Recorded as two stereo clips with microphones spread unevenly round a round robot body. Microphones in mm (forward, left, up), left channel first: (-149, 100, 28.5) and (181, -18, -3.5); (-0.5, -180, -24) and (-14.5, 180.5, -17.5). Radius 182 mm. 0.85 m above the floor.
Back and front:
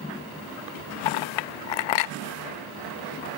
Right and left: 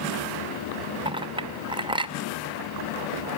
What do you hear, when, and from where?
1.1 s a clink: 170° left, 0.6 m